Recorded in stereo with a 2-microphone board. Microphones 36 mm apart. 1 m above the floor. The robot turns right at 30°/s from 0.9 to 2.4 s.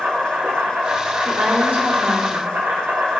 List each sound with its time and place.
0.0 s an insect: 110° right, 2.5 m; by 3.2 s 65° right, 2.5 m
1.2 s a woman speaking: 135° right, 2.5 m; by 2.5 s 100° right, 2.5 m